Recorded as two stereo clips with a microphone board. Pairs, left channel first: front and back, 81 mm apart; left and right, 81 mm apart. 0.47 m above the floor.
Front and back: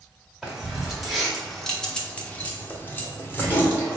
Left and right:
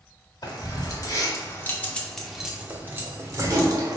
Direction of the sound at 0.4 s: 100° left.